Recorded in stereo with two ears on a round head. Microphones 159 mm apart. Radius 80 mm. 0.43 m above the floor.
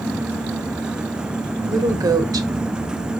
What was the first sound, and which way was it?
A woman speaking, 20° right (ahead or behind).